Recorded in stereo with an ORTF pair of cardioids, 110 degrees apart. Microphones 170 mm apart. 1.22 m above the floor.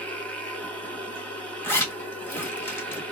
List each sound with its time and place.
0.0 s a machine running: 5° left, 1.2 m
1.6 s a zipper: 10° left, 1.3 m